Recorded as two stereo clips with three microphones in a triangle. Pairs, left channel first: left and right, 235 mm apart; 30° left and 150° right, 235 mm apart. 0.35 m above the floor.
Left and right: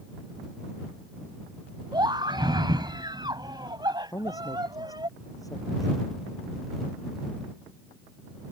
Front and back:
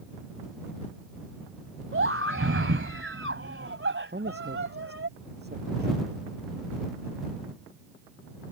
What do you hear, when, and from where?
1.9 s a scream: 160° right
4.1 s a man speaking: 165° left